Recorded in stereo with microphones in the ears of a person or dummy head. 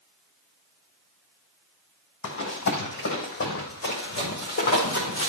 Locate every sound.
2.2 s running footsteps: 60° left (ahead or behind), 3.5 m; by 5.3 s 40° left (ahead or behind), 5 m